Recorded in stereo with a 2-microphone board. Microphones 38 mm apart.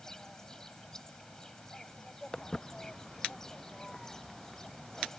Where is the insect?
15° left (ahead or behind).